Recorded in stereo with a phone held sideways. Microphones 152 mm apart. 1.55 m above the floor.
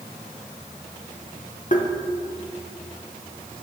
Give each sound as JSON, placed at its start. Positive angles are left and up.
{"t": 1.7, "sound": "tapping", "side_deg": 60, "distance_m": 1.0}